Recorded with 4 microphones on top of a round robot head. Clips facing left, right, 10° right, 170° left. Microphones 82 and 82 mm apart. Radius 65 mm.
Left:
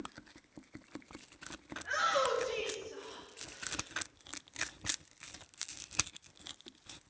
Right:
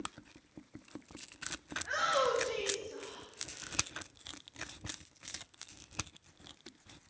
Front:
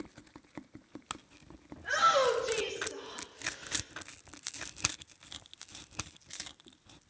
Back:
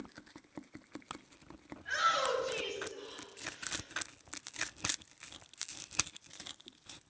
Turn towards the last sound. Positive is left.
turn(degrees=20)